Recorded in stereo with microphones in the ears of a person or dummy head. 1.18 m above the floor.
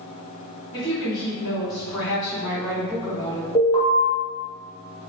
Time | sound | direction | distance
0.7 | a woman speaking | 30° left (ahead or behind) | 1.9 m
3.5 | an alarm | 20° left (ahead or behind) | 1.2 m